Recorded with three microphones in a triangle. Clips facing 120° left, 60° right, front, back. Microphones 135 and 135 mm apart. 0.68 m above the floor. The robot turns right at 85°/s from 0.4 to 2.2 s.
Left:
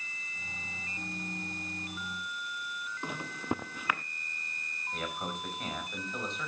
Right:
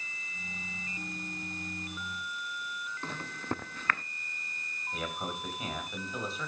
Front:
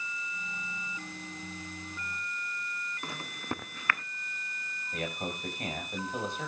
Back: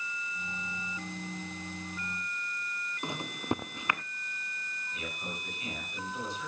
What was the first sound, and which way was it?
A microwave, 170° left.